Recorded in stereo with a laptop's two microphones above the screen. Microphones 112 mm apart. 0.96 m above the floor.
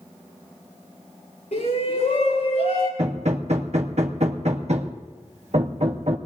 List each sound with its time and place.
1.5 s a shout: 80° left, 10 m
3.0 s hammering: 75° right (ahead or behind), 1.1 m